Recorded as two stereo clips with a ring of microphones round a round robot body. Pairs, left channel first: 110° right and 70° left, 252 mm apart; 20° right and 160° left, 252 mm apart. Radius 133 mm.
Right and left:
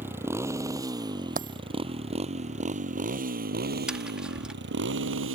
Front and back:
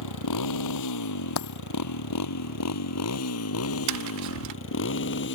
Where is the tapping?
155° left.